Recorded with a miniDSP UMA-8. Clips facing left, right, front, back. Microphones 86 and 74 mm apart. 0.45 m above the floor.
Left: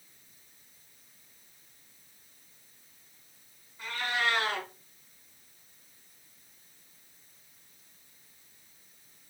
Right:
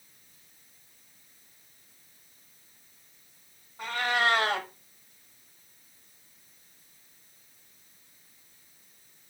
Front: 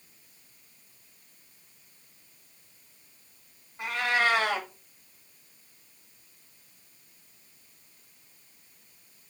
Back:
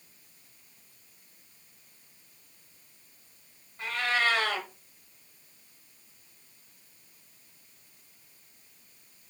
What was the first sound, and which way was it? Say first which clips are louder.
A cat meowing: right 4 dB, front 2 dB; 70° right.